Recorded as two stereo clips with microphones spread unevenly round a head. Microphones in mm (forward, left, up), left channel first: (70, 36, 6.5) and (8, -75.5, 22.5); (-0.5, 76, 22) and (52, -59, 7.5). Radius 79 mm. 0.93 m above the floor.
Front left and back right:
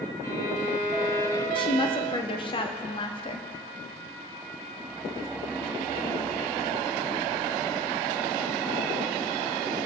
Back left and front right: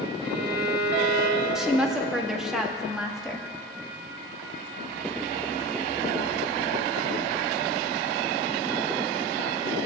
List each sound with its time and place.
0.2 s a violin: 10° right, 3 m
1.6 s a woman speaking: 15° left, 1.6 m